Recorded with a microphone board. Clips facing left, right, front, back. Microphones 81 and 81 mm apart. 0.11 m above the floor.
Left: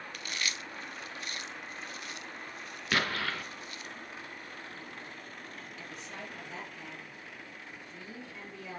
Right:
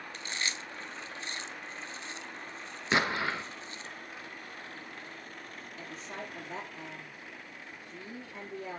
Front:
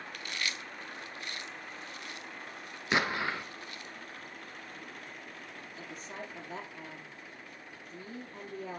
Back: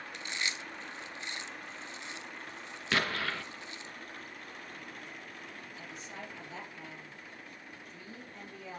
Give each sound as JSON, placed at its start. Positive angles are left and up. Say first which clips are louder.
{"t": 0.1, "sound": "chewing", "louder": "right 1 dB, back 1 dB", "azimuth_deg": -130, "distance_m": 0.7}
{"t": 2.9, "sound": "an explosion", "louder": "right 3 dB, front 2 dB", "azimuth_deg": -50, "distance_m": 1.0}
{"t": 5.8, "sound": "a woman speaking", "louder": "right 4 dB, front 3 dB", "azimuth_deg": -35, "distance_m": 3.5}